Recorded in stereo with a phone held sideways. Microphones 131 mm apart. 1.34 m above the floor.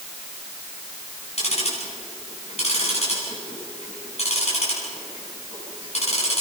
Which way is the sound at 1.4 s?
55° left (ahead or behind).